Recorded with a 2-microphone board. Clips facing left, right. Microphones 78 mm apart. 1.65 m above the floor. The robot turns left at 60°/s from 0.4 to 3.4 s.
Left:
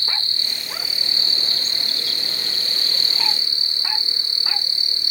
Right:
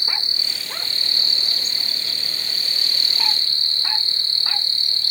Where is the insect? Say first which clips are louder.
Even; 160° right; by 5.1 s 20° left.